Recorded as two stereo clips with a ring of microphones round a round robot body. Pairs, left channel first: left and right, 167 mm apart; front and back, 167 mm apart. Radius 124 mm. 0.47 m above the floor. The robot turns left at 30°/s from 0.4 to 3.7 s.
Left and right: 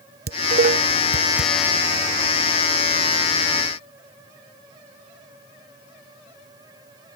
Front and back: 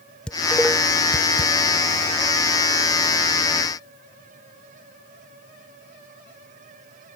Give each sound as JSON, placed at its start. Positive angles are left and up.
{"t": 0.3, "sound": "dishes clattering", "azimuth_deg": -85}